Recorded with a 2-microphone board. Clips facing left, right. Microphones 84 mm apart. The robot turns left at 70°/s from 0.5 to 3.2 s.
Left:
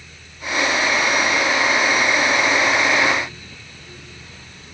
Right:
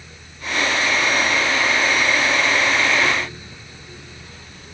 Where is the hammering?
I don't hear hammering.